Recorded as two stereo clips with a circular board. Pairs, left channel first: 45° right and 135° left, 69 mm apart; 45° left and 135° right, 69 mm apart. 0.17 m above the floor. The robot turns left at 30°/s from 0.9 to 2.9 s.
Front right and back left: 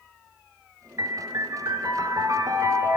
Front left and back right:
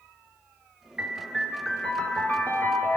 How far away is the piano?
About 0.9 m.